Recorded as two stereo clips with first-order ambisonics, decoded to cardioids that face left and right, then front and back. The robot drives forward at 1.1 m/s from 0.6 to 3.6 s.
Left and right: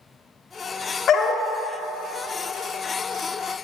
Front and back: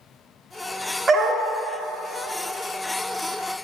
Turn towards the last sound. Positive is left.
turn(degrees=175)